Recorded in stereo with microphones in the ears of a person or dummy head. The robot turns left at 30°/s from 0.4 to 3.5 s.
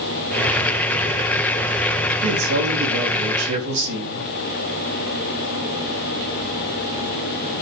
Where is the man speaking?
70° right, 3 m; by 4.2 s 110° right, 3 m.